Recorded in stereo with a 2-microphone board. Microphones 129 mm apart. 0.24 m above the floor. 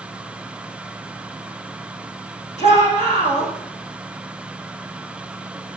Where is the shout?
60° left (ahead or behind), 9.5 m.